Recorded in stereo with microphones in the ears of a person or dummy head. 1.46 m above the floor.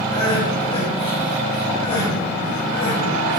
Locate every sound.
0.1 s crying: 30° left (ahead or behind), 2.5 m